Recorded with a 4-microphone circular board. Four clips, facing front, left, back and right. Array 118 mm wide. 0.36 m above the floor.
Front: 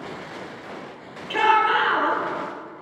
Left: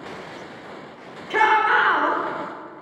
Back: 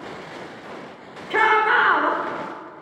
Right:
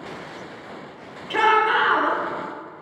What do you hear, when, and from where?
1.3 s a shout: 160° left, 1.1 m